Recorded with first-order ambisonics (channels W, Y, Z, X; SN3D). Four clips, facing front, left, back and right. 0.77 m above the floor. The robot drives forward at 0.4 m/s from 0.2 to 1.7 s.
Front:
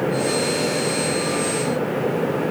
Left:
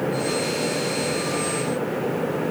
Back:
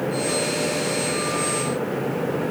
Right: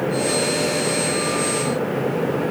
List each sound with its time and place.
Only background noise.